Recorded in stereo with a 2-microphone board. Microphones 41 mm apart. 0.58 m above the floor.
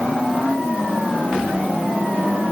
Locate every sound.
Only background noise.